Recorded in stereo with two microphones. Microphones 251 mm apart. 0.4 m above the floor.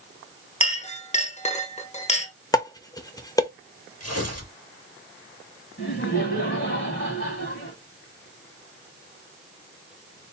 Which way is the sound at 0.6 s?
25° left (ahead or behind).